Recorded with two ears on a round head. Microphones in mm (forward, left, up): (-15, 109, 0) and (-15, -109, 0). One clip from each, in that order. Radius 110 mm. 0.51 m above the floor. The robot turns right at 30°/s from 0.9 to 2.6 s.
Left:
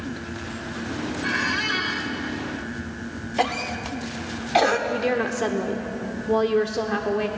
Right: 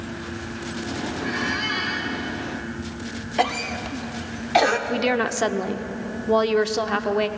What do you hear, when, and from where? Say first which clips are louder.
1.2 s a squeak: left 2 dB; 35° left (ahead or behind), 1.7 m; by 2.1 s 15° left (ahead or behind), 1.7 m
3.4 s a cough: right 1 dB; 5° right (ahead or behind), 1.0 m
4.9 s a woman speaking: right 1 dB; 30° right (ahead or behind), 1.0 m